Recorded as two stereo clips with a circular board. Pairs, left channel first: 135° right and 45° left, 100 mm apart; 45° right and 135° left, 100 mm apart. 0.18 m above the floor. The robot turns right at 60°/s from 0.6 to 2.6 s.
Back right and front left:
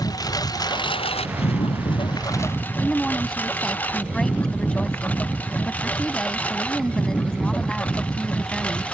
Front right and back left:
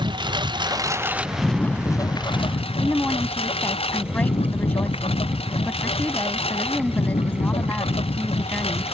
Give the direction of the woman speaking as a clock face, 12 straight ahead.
2 o'clock.